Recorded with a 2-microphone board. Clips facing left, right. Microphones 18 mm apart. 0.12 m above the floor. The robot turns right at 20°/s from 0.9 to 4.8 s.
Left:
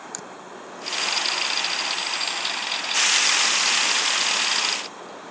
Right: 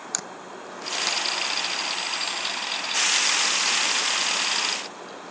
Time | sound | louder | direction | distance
0.1 | a camera shutter | right 2 dB | 35° right (ahead or behind) | ?